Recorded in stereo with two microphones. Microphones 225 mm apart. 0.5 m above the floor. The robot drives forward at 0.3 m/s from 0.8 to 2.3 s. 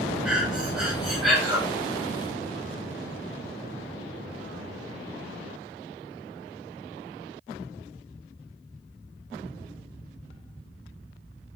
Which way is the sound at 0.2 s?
5° right (ahead or behind).